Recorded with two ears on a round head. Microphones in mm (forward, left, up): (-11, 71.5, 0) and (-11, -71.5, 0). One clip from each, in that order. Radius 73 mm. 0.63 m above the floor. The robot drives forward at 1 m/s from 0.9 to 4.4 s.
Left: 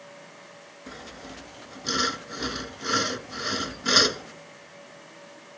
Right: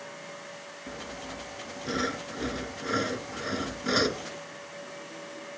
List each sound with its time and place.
0.9 s sawing: 65° left (ahead or behind); by 4.3 s 70° left (ahead or behind)